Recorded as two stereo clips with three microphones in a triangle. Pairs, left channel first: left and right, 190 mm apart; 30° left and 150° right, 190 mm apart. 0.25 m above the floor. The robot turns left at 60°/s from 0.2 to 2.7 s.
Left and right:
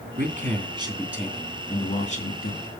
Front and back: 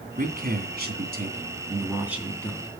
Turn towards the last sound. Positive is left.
turn(degrees=95)